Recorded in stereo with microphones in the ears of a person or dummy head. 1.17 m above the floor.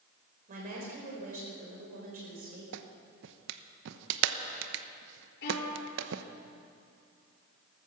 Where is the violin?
55° left (ahead or behind), 4.5 m.